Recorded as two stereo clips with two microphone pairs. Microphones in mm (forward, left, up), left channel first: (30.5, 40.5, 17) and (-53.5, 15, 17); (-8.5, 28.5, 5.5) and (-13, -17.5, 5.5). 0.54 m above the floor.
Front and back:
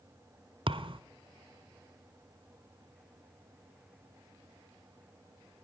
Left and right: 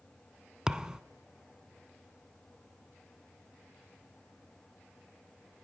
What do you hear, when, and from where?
0.7 s a thud: 170° right, 0.9 m